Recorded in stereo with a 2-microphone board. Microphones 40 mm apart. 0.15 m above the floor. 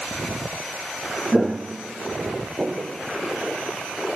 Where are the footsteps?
10° right (ahead or behind), 0.6 m; by 3.0 s 40° right (ahead or behind), 2 m.